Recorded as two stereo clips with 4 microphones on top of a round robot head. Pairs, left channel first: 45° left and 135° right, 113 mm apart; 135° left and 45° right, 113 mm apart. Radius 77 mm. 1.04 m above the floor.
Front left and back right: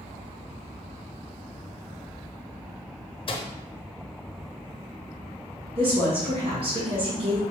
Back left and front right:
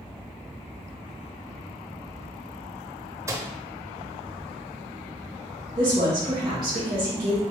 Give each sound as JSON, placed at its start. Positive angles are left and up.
{"t": 3.3, "sound": "a microwave", "azimuth_deg": 15, "distance_m": 0.8}
{"t": 5.8, "sound": "a woman speaking", "azimuth_deg": -105, "distance_m": 1.5}